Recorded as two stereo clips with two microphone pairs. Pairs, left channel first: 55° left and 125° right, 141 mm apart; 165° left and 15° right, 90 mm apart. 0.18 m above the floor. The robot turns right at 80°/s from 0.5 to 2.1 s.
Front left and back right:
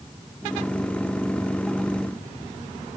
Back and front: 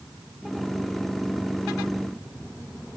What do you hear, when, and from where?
Only background noise.